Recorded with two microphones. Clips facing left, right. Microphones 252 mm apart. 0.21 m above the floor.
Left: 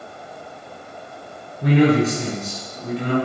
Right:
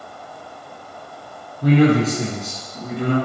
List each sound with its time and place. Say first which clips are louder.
1.6 s a man speaking: right 1 dB; 25° left (ahead or behind), 1.3 m; by 3.1 s 55° right (ahead or behind), 1.8 m